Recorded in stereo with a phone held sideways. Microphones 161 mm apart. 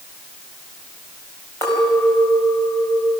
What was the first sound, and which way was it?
A clink, 20° left (ahead or behind).